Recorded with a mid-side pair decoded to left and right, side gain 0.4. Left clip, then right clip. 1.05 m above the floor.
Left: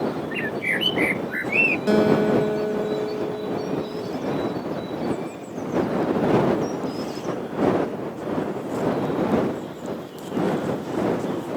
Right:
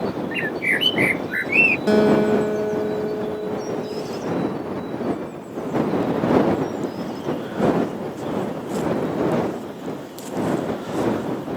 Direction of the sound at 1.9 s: 10° right.